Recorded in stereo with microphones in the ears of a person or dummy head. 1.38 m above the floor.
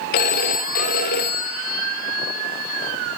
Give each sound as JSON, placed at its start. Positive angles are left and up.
{"t": 0.1, "sound": "a phone ringing", "side_deg": 35, "distance_m": 0.6}